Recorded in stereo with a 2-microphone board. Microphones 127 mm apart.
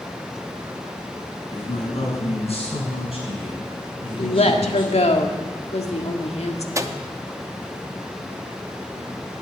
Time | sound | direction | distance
1.5 | a man speaking | 60° left (ahead or behind) | 6 m
4.2 | a woman speaking | 60° left (ahead or behind) | 1.8 m
6.8 | a microwave | 25° right (ahead or behind) | 0.8 m